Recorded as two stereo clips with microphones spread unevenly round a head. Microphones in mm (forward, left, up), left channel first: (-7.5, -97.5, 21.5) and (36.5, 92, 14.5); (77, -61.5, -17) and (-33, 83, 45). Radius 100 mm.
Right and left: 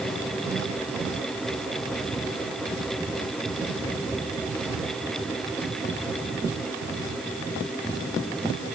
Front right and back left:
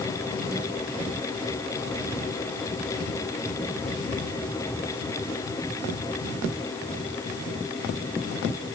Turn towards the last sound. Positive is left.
No sound to turn to.